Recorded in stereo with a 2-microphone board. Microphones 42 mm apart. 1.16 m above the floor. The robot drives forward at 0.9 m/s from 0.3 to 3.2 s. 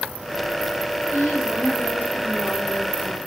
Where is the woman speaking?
75° left (ahead or behind), 2.5 m; by 3.2 s 45° left (ahead or behind), 3.5 m.